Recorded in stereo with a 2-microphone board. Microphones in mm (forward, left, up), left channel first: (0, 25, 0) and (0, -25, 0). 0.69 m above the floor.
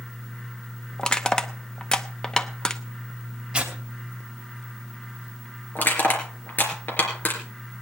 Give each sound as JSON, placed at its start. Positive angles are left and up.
{"t": 1.0, "sound": "crushing", "side_deg": 15, "distance_m": 0.8}
{"t": 3.5, "sound": "tearing paper", "side_deg": -20, "distance_m": 2.5}
{"t": 5.8, "sound": "crushing", "side_deg": 45, "distance_m": 3.0}